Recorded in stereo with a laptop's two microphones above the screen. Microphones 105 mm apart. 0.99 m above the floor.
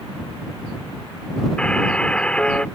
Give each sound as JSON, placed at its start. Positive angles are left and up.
{"t": 1.6, "sound": "a buzzer", "side_deg": 10}